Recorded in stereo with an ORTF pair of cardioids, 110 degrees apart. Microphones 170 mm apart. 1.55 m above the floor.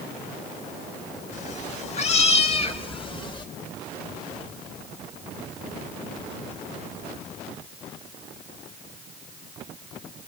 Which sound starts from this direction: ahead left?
A cat meowing, at 1.3 s.